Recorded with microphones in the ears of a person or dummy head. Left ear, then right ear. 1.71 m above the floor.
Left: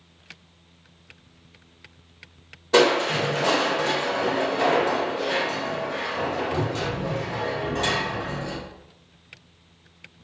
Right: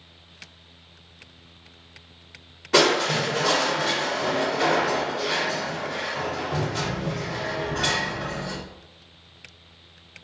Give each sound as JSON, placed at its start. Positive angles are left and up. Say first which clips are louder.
{"t": 2.7, "sound": "crushing", "louder": "left 1 dB", "side_deg": -10, "distance_m": 1.4}